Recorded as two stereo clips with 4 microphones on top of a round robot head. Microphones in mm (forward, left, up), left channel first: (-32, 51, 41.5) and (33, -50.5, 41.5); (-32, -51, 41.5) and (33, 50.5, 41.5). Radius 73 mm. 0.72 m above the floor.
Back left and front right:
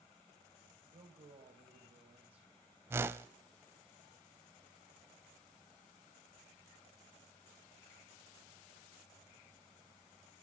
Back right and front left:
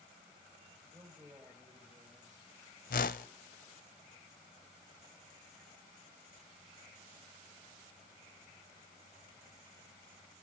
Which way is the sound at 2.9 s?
125° right.